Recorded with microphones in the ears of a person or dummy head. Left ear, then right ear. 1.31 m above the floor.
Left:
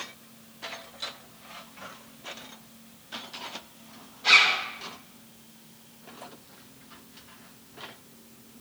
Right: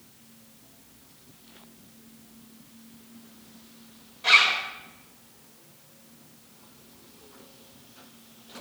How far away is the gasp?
No gasp in this recording.